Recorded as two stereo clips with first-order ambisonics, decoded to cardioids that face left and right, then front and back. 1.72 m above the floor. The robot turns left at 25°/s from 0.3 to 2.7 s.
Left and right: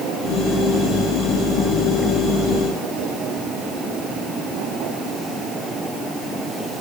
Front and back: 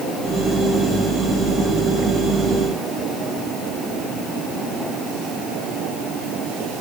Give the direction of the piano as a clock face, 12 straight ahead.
I don't hear a piano.